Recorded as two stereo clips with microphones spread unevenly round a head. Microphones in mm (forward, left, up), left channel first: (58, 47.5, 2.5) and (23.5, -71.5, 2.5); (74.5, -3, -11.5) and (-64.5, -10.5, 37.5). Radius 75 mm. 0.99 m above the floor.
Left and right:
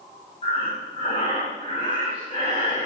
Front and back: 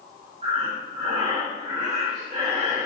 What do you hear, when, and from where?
0.4 s breathing: 130° left, 5.5 m